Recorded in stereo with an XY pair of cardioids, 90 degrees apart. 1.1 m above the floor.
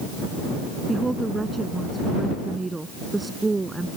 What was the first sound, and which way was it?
A woman speaking, 20° right.